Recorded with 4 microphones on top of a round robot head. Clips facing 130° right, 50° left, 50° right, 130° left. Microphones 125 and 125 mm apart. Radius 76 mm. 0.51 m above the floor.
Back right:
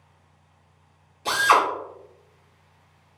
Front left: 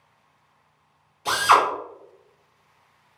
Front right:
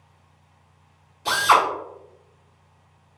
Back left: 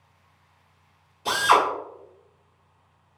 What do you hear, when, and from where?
1.2 s a drill: 150° right, 1.6 m